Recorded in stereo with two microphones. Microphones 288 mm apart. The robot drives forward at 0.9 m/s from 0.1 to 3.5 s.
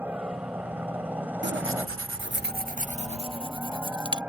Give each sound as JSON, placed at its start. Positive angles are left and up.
{"t": 0.0, "sound": "a helicopter", "side_deg": -5}
{"t": 1.4, "sound": "tearing paper", "side_deg": -40}